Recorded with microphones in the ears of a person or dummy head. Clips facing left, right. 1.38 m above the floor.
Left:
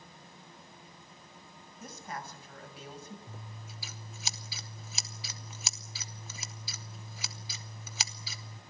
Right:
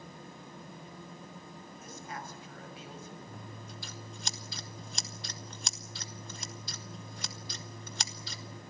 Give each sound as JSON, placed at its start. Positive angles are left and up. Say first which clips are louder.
{"t": 1.8, "sound": "a woman speaking", "louder": "left 2 dB", "side_deg": 40, "distance_m": 7.0}
{"t": 3.3, "sound": "scissors", "louder": "right 3 dB", "side_deg": 0, "distance_m": 0.7}